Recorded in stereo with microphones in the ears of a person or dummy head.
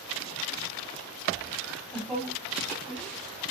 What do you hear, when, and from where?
1.6 s laughter: centre (ahead or behind), 8 m; by 3.5 s 10° left (ahead or behind), 10.5 m